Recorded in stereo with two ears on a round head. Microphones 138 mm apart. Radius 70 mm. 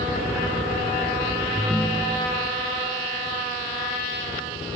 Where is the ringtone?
10° right (ahead or behind).